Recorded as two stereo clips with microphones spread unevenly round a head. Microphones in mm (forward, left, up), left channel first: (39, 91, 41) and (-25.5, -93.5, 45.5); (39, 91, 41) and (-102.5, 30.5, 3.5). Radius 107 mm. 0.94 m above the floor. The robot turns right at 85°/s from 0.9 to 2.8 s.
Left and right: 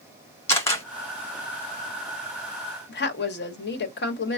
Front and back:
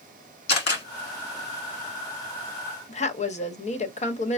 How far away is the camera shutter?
About 1.4 m.